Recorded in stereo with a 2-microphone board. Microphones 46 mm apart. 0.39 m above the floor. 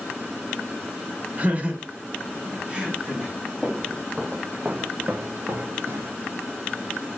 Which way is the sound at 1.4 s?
35° right (ahead or behind).